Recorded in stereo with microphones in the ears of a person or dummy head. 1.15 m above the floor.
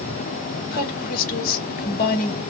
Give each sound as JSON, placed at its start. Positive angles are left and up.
{"t": 0.7, "sound": "a woman speaking", "side_deg": 50, "distance_m": 1.4}